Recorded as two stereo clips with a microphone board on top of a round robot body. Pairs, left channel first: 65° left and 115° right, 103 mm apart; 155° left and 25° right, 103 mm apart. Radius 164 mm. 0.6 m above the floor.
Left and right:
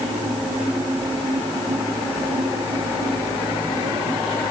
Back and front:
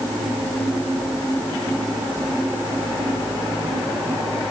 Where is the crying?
I don't hear crying.